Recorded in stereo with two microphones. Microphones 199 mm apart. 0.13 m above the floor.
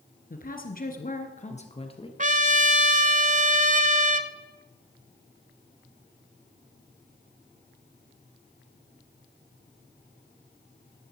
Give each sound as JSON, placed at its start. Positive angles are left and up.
{"t": 0.3, "sound": "a woman speaking", "side_deg": 45, "distance_m": 1.7}
{"t": 2.2, "sound": "a trumpet", "side_deg": -40, "distance_m": 0.7}